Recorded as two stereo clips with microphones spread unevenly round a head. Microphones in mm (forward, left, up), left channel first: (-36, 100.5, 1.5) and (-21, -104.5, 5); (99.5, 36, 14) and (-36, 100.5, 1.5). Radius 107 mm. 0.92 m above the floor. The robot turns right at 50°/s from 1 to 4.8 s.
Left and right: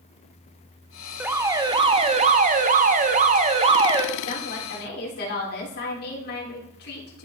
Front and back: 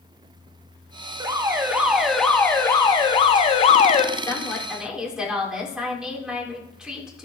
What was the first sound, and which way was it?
An alarm, 165° right.